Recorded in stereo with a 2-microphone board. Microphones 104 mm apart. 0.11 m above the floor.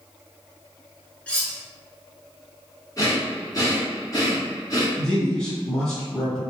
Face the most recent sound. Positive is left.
turn(degrees=5)  # may be behind; listen again after turning